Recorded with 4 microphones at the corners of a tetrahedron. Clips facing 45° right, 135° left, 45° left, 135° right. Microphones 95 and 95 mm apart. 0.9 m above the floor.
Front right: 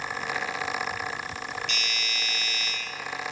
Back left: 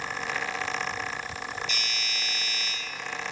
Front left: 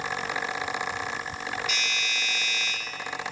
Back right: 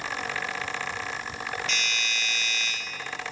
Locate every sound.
1.7 s a doorbell: 30° right, 2.5 m